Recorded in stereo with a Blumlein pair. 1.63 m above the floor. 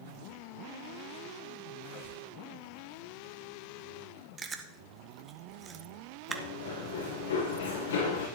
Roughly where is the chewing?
Ahead.